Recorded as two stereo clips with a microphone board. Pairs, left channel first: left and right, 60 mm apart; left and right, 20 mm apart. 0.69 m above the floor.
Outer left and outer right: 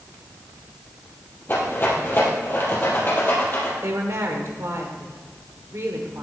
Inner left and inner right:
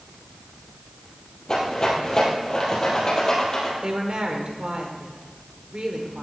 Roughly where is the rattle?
Left.